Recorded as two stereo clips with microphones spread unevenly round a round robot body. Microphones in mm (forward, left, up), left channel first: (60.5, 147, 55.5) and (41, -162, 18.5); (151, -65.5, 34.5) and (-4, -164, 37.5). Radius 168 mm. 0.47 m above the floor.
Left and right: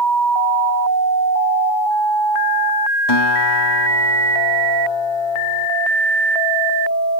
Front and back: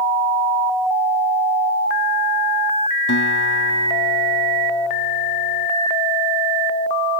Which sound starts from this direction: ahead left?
A guitar, at 3.1 s.